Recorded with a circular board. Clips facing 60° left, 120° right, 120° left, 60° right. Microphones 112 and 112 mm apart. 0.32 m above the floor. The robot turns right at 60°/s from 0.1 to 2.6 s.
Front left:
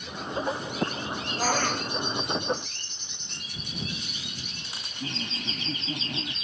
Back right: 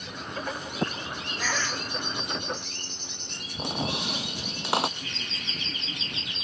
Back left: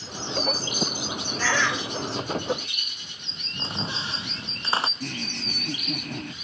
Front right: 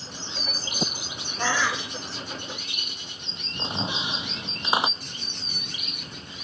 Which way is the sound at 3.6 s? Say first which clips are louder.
Back right 7 dB, front right 2 dB; 135° right.